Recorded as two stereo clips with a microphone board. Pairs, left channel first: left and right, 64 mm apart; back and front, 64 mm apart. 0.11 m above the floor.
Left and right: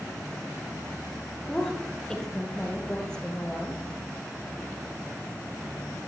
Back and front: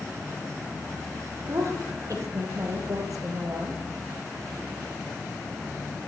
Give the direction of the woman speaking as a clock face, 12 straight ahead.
12 o'clock.